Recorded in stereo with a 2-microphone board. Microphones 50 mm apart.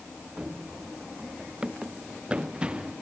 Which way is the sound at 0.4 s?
20° right (ahead or behind).